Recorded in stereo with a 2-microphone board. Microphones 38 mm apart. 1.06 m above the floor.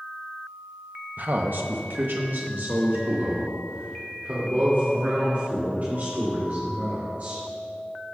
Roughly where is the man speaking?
Right.